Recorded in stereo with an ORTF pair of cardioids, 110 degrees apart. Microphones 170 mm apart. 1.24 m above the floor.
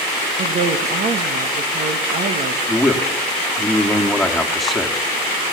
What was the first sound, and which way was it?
A woman speaking, 50° right.